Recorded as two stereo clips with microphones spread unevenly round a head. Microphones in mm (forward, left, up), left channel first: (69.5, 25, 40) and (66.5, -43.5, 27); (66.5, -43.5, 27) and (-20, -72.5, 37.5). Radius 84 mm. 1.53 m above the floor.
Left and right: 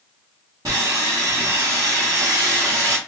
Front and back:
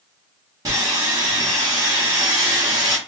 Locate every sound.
0.7 s sawing: 155° right, 0.9 m